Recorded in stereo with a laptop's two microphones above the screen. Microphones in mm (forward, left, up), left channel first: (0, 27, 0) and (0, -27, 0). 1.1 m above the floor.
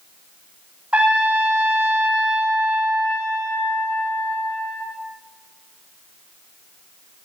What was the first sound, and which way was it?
A trumpet, 25° right (ahead or behind).